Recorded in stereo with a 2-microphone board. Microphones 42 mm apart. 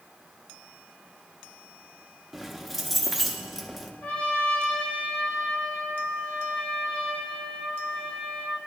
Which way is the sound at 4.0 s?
35° left (ahead or behind).